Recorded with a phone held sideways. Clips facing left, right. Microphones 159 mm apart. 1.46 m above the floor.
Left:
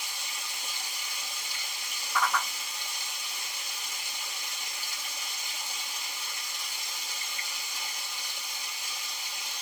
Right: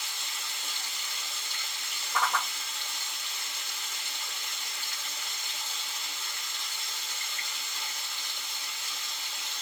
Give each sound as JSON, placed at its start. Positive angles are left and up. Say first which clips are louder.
{"t": 0.0, "sound": "running water", "louder": "left 1 dB", "side_deg": 10, "distance_m": 1.1}
{"t": 2.1, "sound": "a whoosh", "louder": "left 1 dB", "side_deg": -30, "distance_m": 1.5}